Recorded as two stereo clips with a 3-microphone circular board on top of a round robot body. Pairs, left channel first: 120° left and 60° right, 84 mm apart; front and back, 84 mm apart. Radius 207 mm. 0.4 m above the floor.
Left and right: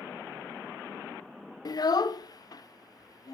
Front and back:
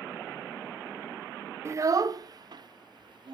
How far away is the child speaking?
About 0.6 m.